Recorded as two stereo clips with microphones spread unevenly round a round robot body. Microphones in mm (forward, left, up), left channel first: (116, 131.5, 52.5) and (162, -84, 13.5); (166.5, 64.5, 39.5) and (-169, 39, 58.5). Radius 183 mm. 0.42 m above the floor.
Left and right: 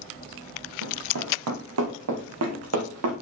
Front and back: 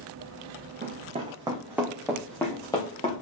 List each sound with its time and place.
0.8 s running footsteps: 110° right, 1.9 m; by 3.1 s 70° right, 2.5 m